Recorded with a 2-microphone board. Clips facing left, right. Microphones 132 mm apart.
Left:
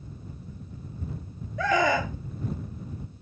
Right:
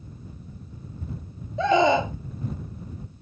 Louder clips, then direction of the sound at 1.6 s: Right 5 dB; 25° right (ahead or behind).